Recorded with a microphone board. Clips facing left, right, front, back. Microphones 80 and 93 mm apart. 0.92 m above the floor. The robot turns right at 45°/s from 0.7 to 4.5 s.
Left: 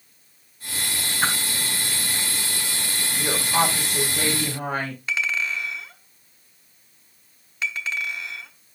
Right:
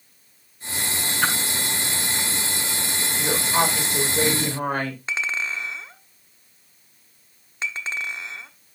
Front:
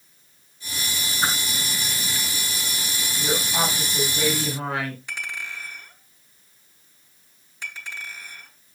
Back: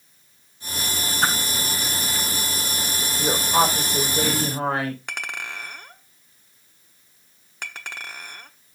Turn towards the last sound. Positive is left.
turn(degrees=-150)